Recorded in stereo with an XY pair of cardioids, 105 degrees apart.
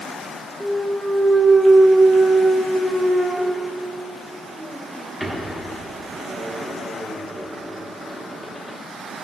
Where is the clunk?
Straight ahead, 1.0 m.